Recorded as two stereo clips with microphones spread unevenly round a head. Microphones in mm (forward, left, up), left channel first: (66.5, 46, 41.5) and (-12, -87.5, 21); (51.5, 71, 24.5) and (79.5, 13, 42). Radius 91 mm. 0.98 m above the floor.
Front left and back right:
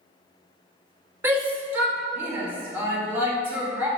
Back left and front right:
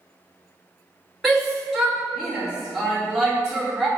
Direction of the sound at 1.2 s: 165° right.